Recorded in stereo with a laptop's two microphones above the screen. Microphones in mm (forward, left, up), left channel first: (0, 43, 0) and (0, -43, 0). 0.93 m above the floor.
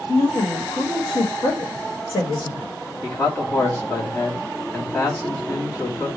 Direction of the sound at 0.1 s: 70° left (ahead or behind).